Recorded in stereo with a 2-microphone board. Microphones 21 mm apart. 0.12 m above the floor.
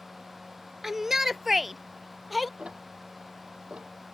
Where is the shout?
20° right (ahead or behind); by 2.5 s 10° right (ahead or behind).